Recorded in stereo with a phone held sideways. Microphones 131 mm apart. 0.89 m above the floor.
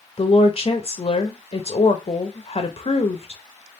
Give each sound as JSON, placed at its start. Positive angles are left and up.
{"t": 0.2, "sound": "a woman speaking", "side_deg": 45, "distance_m": 0.6}